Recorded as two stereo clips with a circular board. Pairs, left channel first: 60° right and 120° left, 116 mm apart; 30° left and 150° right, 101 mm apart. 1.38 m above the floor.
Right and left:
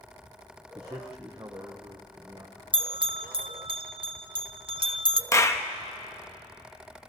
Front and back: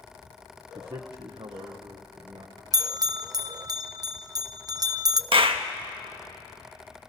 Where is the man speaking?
Straight behind, 0.9 m.